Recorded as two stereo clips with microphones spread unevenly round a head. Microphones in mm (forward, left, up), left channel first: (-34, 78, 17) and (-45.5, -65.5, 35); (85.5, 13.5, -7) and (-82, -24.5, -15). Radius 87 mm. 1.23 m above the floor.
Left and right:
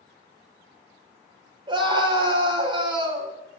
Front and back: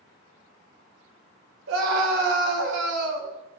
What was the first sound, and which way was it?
A scream, 150° right.